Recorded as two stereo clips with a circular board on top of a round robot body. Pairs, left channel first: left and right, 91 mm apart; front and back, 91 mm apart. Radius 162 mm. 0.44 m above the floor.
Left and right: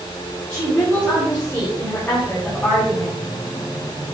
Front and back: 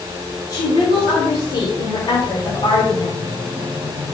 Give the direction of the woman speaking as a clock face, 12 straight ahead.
11 o'clock.